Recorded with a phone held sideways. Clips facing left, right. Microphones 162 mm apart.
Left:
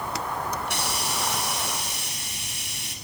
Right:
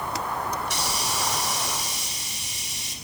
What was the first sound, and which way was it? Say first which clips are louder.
A hiss: even; 60° left (ahead or behind).